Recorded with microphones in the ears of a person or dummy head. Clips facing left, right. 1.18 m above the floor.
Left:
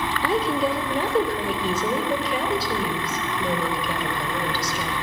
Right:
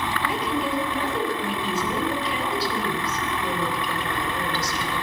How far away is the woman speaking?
About 3 m.